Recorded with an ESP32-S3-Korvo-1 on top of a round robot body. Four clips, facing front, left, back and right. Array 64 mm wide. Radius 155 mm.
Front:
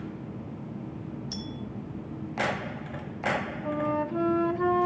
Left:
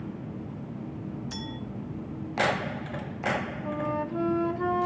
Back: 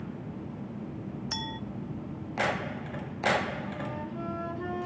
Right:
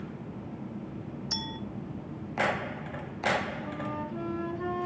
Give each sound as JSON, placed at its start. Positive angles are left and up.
{"t": 1.3, "sound": "a clink", "azimuth_deg": -170, "distance_m": 0.7}
{"t": 3.6, "sound": "a flute", "azimuth_deg": 25, "distance_m": 0.7}